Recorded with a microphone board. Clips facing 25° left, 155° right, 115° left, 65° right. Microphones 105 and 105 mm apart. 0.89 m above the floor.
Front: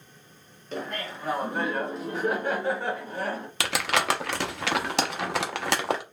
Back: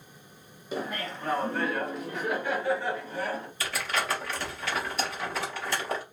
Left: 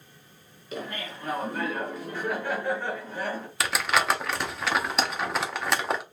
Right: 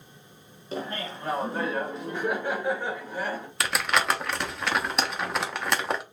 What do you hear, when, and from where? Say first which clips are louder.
0.7 s laughter: even, right 2 dB; 85° right, 1.0 m; by 3.5 s 10° left, 1.6 m
3.6 s crumpling: front 6 dB, left 1 dB; 25° left, 0.6 m